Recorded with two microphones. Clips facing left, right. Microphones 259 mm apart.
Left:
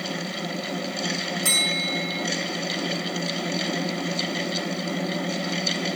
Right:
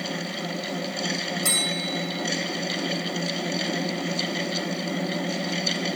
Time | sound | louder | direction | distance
1.4 | a bell | even | 50° right (ahead or behind) | 5.5 m